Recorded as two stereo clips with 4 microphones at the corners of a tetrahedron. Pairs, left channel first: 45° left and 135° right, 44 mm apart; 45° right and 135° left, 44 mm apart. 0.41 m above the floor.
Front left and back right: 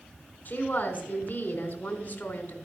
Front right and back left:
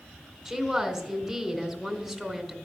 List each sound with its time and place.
0.5 s a woman speaking: 45° left, 1.5 m